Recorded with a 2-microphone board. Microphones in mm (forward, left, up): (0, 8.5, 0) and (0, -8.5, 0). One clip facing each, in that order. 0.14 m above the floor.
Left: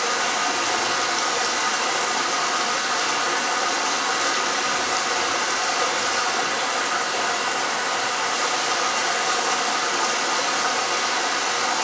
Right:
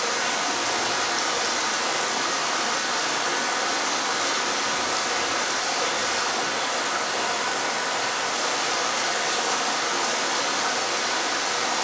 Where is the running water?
20° left (ahead or behind), 2 m.